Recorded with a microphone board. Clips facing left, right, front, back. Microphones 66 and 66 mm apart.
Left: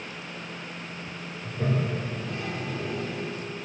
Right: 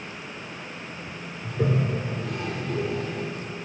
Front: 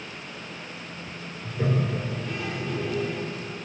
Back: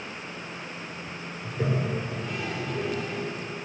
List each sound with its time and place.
1.4 s a toilet flushing: 95° right, 4.5 m